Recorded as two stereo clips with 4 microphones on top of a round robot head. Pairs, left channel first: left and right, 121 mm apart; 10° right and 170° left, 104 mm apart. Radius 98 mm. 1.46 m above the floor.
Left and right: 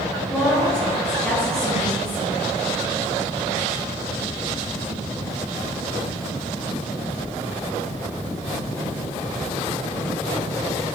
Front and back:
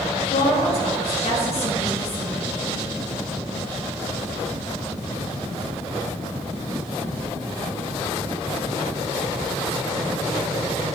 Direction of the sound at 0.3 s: 5° left.